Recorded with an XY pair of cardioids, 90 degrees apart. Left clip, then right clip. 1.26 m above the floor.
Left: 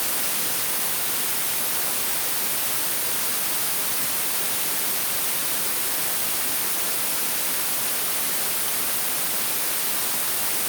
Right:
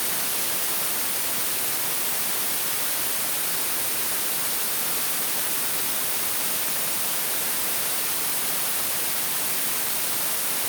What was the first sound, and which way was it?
Only background noise.